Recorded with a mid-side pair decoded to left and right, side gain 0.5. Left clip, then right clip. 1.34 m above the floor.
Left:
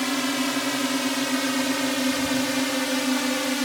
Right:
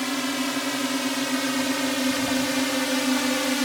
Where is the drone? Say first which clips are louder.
Left 2 dB; 15° left; by 3.6 s 5° right.